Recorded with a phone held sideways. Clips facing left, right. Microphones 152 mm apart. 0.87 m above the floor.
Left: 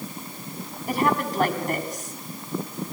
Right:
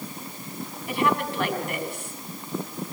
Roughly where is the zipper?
I don't hear a zipper.